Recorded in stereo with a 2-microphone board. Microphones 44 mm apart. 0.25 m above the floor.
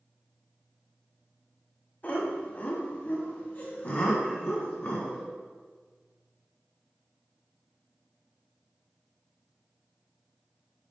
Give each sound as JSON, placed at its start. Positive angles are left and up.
{"t": 2.0, "sound": "laughter", "side_deg": 35, "distance_m": 1.5}